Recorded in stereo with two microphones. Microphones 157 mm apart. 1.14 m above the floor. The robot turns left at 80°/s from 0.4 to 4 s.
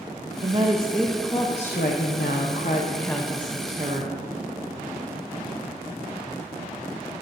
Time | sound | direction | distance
0.4 | a woman speaking | 130° right | 0.9 m